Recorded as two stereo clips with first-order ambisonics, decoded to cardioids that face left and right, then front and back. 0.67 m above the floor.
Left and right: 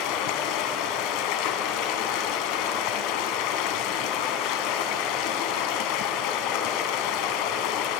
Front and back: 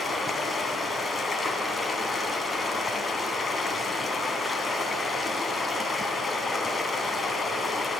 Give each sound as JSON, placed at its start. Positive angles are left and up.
{"t": 0.0, "sound": "running water", "azimuth_deg": 75, "distance_m": 1.9}